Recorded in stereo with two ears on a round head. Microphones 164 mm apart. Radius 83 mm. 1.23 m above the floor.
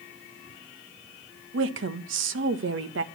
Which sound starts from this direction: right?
A woman speaking, at 1.5 s.